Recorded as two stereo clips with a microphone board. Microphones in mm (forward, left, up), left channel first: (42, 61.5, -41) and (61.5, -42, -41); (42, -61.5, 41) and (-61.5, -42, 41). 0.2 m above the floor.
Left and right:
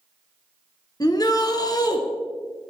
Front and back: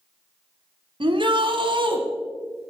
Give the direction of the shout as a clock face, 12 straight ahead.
7 o'clock.